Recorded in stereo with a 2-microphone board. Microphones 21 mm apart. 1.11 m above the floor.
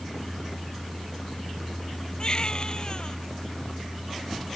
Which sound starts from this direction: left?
A baby crying, at 2.2 s.